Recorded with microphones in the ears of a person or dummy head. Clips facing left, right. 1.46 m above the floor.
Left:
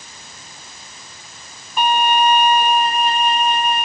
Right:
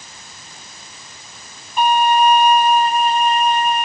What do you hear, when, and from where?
1.8 s a violin: 70° left (ahead or behind), 2.0 m